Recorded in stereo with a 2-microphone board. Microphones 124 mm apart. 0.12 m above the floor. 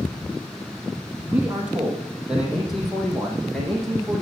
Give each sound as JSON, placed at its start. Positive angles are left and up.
{"t": 1.2, "sound": "a man speaking", "side_deg": -15, "distance_m": 3.5}